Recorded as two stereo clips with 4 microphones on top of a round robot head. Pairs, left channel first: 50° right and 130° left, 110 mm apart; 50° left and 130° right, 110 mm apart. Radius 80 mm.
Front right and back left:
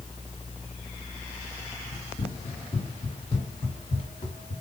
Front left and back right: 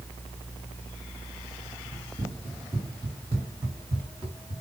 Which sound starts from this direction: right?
Running footsteps, at 1.9 s.